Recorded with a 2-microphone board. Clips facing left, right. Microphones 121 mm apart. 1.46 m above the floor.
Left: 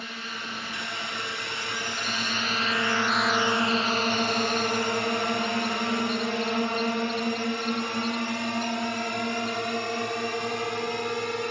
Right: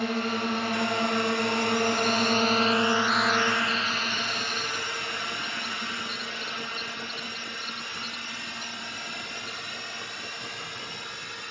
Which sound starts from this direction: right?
A drone, at 0.0 s.